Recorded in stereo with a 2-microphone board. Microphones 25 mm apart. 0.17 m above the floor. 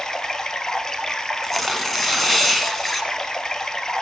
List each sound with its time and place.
0.0 s running water: 30° left (ahead or behind), 1.0 m
1.4 s tearing paper: 10° left (ahead or behind), 1.6 m